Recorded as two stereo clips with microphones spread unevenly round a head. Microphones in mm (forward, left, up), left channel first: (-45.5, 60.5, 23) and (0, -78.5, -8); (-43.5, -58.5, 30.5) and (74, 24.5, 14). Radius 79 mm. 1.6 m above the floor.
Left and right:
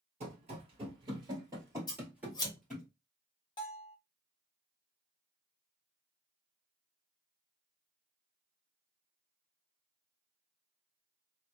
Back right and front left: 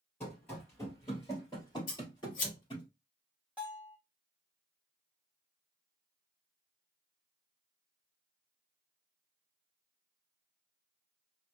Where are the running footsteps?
95° right, 1.8 m; by 2.9 s 175° right, 2.0 m.